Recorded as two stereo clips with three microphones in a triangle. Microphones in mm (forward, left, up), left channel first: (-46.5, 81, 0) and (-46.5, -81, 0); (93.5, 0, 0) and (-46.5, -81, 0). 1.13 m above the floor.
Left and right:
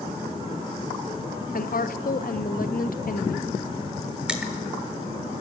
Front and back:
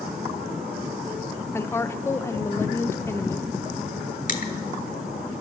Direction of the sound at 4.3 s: 5° right.